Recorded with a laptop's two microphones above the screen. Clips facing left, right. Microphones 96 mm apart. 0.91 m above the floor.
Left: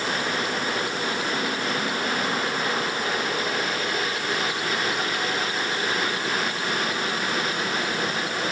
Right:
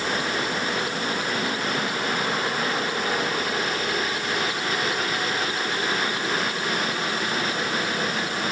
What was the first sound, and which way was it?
Only background noise.